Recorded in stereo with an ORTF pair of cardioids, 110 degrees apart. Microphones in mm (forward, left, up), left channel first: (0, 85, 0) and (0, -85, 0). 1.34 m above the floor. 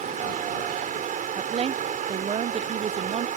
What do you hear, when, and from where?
0.0 s running water: 50° right
1.4 s a woman speaking: 35° right